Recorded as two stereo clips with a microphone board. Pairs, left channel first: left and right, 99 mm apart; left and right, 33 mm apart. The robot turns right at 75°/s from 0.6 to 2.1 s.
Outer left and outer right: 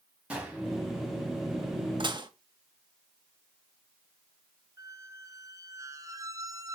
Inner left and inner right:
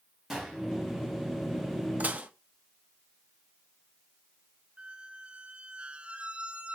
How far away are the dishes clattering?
About 1.1 m.